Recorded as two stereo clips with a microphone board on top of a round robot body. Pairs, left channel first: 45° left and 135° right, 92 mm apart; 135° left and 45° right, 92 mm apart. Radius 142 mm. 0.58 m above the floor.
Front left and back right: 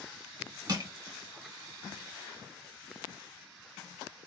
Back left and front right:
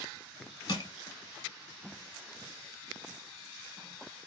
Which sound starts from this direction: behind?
Crushing, at 0.7 s.